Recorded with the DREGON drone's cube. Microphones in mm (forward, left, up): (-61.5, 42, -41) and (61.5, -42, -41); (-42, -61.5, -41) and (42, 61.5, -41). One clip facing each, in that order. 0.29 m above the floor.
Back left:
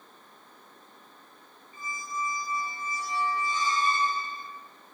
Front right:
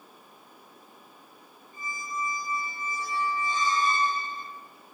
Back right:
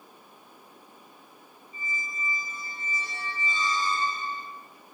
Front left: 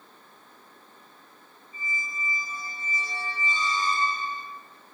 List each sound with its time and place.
1.7 s a squeak: 20° right, 2 m